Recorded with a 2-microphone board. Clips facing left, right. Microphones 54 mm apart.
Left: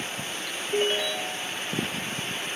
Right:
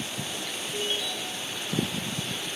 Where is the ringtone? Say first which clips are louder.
Left 7 dB; 50° left (ahead or behind), 0.9 m.